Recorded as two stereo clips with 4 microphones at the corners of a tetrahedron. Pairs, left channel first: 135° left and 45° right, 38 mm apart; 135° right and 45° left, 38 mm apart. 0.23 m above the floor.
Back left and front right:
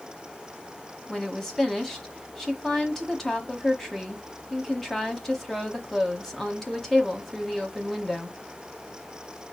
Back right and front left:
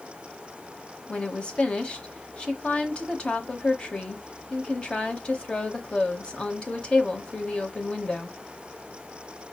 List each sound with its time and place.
1.1 s a woman speaking: 160° right, 1.1 m